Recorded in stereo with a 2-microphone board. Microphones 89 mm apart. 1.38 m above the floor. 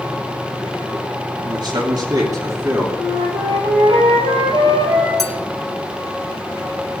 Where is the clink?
5° left (ahead or behind), 1.4 m.